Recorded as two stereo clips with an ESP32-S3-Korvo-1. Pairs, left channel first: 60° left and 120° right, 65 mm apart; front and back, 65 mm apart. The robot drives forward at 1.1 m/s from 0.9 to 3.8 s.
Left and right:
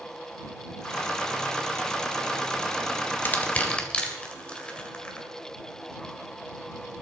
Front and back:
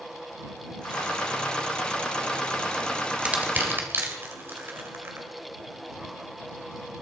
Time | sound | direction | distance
3.2 | crushing | 115° left | 1.7 m